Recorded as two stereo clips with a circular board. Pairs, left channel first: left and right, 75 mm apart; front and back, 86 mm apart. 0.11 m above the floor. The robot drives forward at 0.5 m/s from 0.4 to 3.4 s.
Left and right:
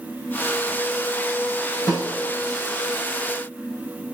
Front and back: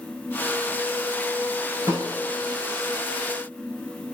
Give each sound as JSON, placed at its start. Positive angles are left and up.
{"t": 1.9, "sound": "a snare drum", "azimuth_deg": 115, "distance_m": 7.0}